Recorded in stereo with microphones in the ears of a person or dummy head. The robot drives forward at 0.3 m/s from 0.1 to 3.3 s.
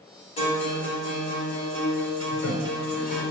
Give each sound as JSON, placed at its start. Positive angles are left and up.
{"t": 0.4, "sound": "a guitar", "side_deg": 30, "distance_m": 1.9}
{"t": 2.3, "sound": "a toilet flushing", "side_deg": 55, "distance_m": 1.1}